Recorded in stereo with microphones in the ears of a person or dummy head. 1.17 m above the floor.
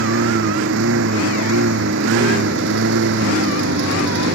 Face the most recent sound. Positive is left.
turn(degrees=-60)  # may be behind; listen again after turning